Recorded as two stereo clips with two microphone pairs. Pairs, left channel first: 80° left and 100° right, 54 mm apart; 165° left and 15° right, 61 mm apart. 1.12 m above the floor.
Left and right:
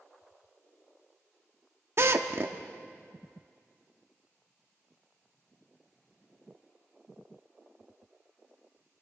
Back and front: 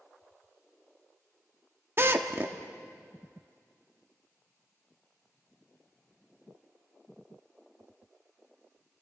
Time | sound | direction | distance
2.0 | a drill | 60° right | 1.1 m